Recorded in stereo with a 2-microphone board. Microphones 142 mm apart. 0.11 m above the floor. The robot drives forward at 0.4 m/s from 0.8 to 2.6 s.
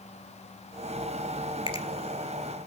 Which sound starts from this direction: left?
A finger snap, at 1.7 s.